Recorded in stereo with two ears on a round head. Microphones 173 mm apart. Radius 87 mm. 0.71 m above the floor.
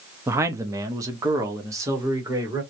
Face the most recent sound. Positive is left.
turn(degrees=-15)  # may be behind; listen again after turning